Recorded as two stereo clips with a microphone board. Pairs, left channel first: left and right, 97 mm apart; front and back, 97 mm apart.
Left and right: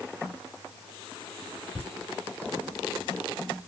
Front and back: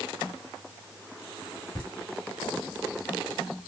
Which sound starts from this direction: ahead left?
Laughter, at 1.8 s.